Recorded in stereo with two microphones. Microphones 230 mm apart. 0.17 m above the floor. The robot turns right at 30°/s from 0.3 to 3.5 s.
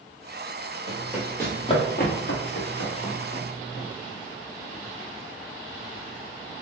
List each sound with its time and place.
0.9 s running footsteps: 15° right (ahead or behind), 1.6 m; by 3.9 s 65° left (ahead or behind), 1.8 m